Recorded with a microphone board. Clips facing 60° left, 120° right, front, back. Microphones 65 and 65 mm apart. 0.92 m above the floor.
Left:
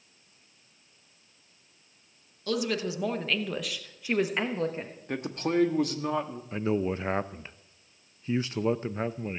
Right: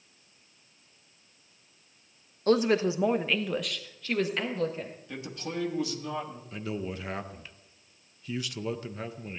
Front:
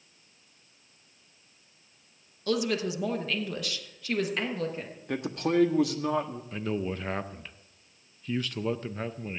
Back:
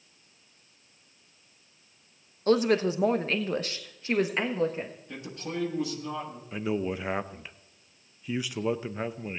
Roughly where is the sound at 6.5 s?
Left.